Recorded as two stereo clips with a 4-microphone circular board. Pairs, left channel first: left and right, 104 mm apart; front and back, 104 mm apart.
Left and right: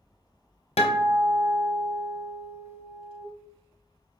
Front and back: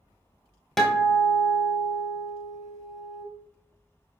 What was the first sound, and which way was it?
A guitar, 85° left.